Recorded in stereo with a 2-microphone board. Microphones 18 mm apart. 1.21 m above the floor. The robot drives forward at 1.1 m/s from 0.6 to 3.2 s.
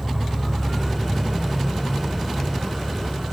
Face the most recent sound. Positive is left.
turn(degrees=-75)  # may be behind; listen again after turning